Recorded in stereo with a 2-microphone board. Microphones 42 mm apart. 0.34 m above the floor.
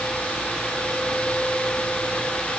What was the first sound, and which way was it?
Only background noise.